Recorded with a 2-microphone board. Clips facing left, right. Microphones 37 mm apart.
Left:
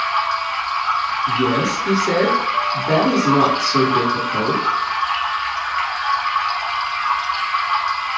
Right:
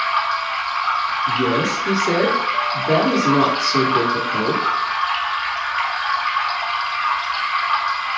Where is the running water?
15° right (ahead or behind), 1.0 m.